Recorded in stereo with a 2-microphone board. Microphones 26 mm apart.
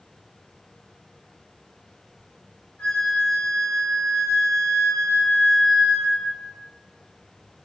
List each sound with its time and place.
2.8 s a flute: 70° left (ahead or behind), 3 m